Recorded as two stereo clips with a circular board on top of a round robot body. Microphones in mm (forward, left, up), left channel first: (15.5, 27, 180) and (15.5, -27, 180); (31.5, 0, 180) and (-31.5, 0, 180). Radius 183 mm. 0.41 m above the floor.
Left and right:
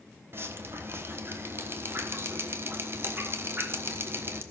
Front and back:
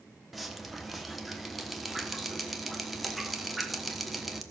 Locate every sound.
0.3 s dripping: 90° right, 1.4 m